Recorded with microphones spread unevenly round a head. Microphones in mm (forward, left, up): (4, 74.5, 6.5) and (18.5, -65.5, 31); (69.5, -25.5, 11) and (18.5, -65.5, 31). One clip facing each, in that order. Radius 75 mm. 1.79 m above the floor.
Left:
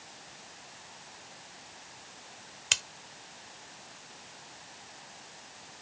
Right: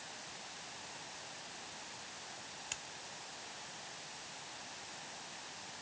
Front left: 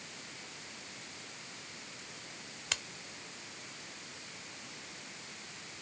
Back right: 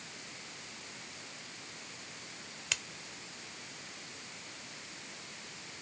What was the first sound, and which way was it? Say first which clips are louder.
Scissors: left 9 dB, back right 1 dB; 115° left.